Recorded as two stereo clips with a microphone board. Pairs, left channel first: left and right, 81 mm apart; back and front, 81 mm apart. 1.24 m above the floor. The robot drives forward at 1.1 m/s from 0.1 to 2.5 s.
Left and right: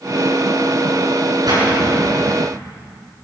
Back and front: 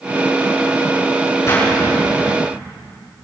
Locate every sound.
1.5 s a splash: 125° right, 9.5 m; by 2.4 s 130° right, 10 m